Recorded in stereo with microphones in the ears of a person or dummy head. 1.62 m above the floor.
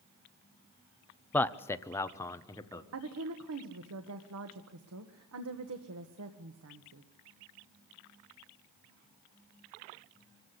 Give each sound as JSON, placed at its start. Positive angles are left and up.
{"t": 1.3, "sound": "a man speaking", "side_deg": 10, "distance_m": 0.7}
{"t": 2.9, "sound": "a woman speaking", "side_deg": -85, "distance_m": 1.6}